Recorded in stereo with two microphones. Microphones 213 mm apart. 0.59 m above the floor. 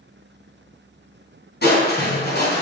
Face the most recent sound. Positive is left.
turn(degrees=50)  # may be behind; listen again after turning